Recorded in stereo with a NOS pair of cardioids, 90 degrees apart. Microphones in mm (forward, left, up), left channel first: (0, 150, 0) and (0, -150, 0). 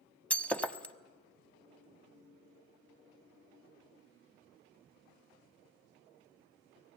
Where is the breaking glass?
5° left, 1.0 m.